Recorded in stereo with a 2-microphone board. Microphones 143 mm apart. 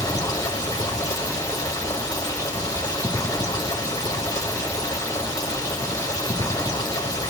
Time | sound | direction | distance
0.0 | running water | 25° left (ahead or behind) | 2 m